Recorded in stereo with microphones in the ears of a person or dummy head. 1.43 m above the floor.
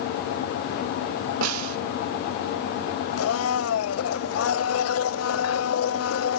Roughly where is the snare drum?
Right.